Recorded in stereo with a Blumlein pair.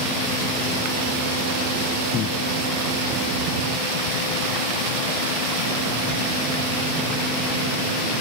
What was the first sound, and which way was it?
Breathing, 30° left.